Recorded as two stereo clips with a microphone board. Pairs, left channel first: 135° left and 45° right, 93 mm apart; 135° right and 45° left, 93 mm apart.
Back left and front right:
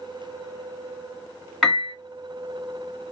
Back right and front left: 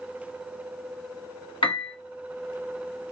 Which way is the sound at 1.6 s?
140° right.